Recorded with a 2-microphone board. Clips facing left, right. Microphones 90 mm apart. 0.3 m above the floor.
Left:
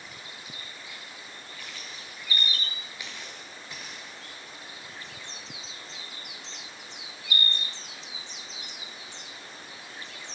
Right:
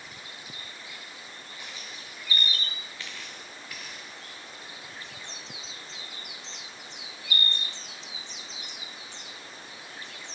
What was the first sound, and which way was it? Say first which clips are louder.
Footsteps: even; 20° right (ahead or behind).